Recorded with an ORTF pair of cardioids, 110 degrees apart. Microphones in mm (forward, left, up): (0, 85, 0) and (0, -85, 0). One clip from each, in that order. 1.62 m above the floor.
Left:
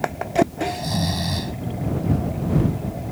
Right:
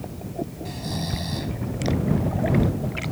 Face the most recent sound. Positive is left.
turn(degrees=35)